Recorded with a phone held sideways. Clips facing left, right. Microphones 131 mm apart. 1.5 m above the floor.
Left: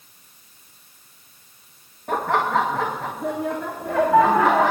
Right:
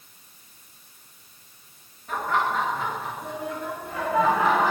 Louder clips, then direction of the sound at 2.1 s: Left 4 dB; 65° left (ahead or behind).